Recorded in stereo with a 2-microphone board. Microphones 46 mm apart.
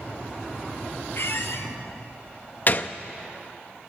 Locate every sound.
1.1 s a squeak: 60° left (ahead or behind), 1.8 m
2.7 s a gunshot: 40° left (ahead or behind), 0.6 m